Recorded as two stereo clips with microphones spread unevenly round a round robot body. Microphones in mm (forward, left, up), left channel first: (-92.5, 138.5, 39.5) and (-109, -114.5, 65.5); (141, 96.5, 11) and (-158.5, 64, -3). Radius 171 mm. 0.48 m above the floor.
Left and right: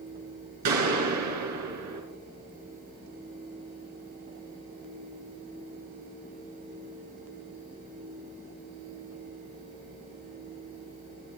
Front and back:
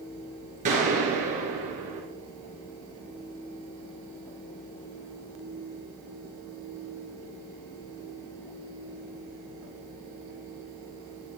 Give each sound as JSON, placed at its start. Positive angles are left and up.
{"t": 0.7, "sound": "a gunshot", "azimuth_deg": -105, "distance_m": 2.5}